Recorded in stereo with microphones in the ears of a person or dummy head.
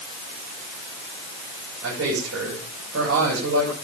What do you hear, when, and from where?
1.8 s a man speaking: 75° right (ahead or behind), 9 m